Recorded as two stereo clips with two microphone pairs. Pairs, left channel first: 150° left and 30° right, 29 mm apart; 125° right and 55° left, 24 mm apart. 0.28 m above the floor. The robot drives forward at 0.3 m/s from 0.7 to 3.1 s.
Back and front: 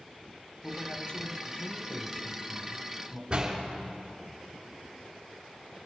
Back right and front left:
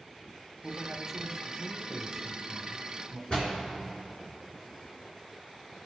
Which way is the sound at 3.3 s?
80° right.